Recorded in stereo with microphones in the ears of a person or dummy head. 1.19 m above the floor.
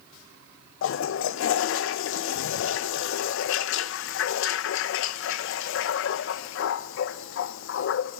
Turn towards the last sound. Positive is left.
turn(degrees=65)  # may be behind; listen again after turning